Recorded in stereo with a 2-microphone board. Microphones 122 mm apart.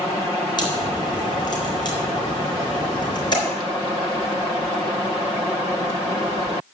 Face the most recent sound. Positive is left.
turn(degrees=35)  # may be behind; listen again after turning